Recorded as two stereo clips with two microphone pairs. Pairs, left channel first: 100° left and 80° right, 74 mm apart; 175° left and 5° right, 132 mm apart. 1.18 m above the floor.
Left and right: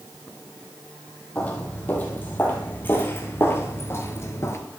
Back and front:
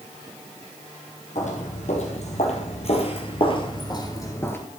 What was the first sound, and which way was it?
Footsteps, 165° left.